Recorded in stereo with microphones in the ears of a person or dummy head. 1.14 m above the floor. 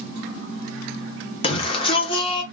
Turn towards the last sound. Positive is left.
turn(degrees=25)  # may be behind; listen again after turning